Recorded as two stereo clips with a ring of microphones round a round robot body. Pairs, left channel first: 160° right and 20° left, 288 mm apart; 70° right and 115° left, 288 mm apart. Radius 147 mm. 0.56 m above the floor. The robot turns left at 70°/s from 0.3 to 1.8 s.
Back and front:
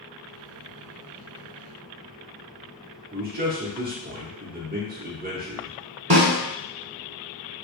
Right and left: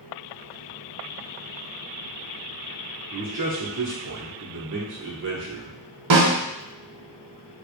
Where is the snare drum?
90° left, 0.9 m.